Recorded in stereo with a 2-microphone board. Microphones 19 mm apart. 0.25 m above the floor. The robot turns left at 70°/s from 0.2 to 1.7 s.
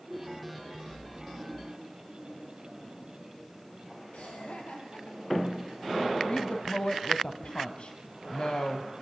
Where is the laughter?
70° left (ahead or behind), 6.5 m.